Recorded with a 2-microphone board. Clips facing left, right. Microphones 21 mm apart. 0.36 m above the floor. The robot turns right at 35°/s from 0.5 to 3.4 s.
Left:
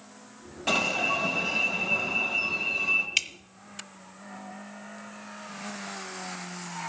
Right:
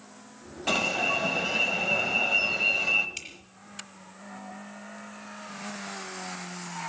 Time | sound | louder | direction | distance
0.7 | an alarm | even | straight behind | 1.8 m
3.2 | dripping | left 13 dB | 55° left (ahead or behind) | 0.6 m